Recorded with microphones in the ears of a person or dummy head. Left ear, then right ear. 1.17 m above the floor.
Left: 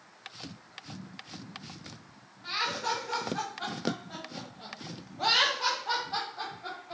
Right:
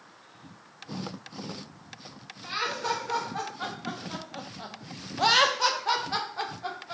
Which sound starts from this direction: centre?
Laughter, at 2.4 s.